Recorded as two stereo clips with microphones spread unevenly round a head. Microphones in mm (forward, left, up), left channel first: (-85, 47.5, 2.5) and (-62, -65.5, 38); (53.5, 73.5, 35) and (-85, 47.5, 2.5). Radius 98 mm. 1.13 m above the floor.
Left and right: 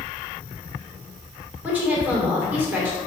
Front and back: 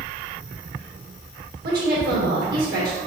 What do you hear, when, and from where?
1.6 s a woman speaking: 155° right, 3 m